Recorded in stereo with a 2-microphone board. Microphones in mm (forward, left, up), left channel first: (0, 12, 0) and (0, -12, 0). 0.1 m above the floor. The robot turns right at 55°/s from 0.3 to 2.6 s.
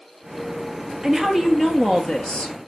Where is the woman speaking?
15° right, 1.8 m; by 2.6 s 70° left, 1.8 m.